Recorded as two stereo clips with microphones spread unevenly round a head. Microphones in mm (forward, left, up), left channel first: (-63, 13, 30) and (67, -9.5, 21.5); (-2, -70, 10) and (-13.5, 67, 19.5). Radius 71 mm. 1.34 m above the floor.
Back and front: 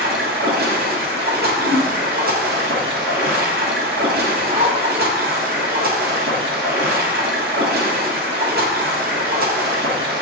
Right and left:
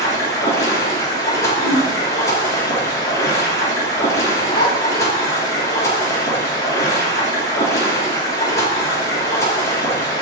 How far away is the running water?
About 1.7 m.